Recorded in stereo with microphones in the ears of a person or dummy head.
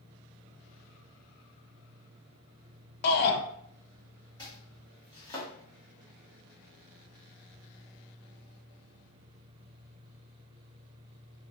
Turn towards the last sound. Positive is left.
turn(degrees=20)  # may be behind; listen again after turning